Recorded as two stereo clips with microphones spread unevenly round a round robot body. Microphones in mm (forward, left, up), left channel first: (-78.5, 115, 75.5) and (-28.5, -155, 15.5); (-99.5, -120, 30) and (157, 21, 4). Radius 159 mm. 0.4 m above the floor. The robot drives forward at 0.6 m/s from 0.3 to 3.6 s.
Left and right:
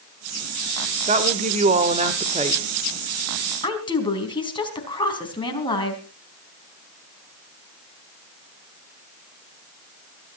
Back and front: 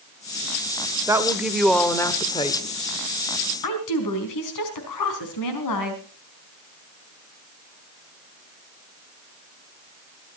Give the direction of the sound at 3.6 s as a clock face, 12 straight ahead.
6 o'clock.